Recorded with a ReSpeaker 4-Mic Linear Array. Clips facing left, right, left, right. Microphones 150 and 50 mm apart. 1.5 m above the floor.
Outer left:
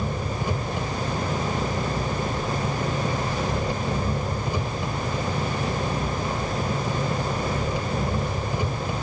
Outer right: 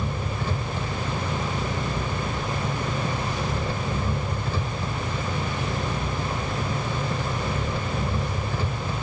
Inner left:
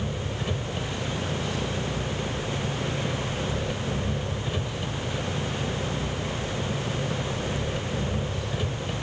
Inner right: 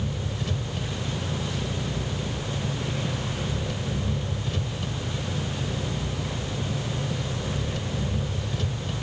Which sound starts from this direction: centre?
An engine running, at 0.0 s.